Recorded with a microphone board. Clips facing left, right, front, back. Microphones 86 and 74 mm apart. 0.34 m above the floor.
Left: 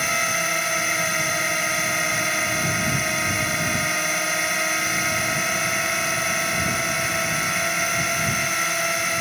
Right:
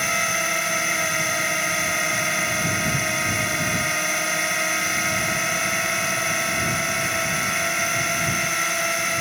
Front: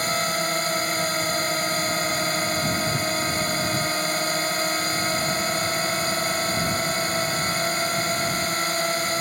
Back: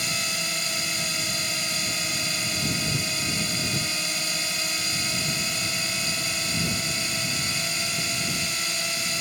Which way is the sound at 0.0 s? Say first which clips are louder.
Even, front 7 dB; straight ahead.